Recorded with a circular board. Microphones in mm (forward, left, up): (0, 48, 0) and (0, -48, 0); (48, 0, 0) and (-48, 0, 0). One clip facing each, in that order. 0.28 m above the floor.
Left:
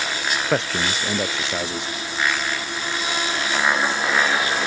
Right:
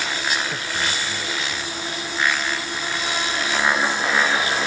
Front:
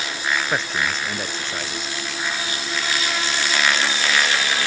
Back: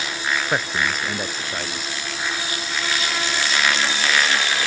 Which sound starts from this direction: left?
A man speaking, at 0.5 s.